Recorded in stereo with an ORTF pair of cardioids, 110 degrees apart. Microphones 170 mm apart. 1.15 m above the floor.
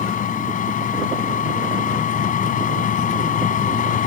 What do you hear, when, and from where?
0.0 s a machine running: 50° left